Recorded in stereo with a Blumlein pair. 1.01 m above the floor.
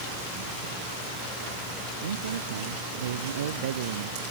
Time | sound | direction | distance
2.0 | a man speaking | 70° right | ?